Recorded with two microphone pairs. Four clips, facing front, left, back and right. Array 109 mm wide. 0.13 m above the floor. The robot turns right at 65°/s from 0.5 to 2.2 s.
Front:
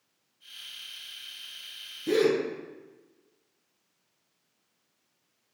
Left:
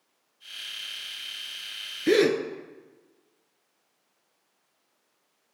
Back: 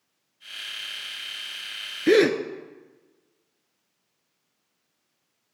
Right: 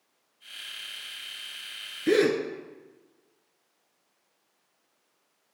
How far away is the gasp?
About 0.5 m.